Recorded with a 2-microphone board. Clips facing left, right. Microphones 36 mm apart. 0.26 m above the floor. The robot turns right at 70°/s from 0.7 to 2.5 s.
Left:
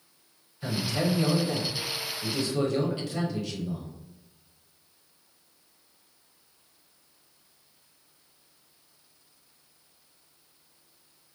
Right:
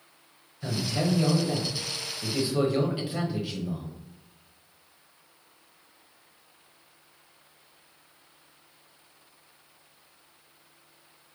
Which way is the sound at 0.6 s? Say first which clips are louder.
Even; 10° left (ahead or behind).